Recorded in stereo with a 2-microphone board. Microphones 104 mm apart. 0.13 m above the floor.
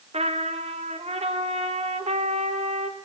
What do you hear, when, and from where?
0.1 s a trumpet: 85° right, 2 m